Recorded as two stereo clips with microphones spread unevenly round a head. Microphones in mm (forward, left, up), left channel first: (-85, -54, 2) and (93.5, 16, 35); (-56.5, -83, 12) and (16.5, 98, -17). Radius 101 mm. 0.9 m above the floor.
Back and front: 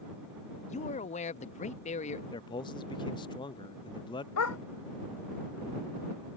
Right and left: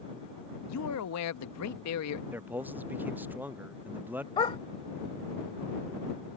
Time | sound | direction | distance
0.7 | a man speaking | 105° right | ?
2.3 | a man speaking | 145° left | ?
4.4 | a dog barking | 170° right | ?